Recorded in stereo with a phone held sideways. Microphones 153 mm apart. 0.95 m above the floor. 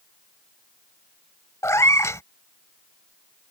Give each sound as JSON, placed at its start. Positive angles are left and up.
{"t": 1.6, "sound": "a cat meowing", "side_deg": 20}